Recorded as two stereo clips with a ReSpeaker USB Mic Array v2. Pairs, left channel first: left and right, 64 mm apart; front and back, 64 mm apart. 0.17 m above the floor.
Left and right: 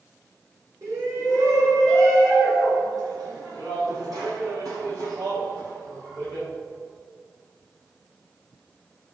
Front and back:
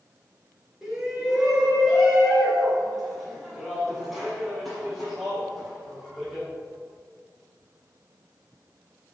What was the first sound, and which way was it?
A shout, 100° right.